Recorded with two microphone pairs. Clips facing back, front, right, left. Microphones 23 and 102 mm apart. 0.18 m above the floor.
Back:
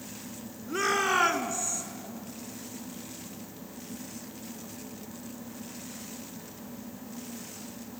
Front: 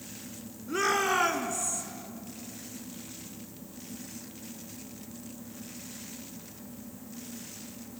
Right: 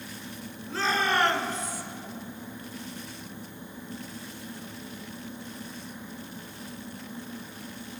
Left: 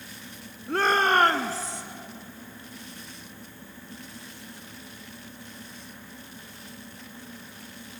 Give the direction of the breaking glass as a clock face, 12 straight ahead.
I don't hear breaking glass.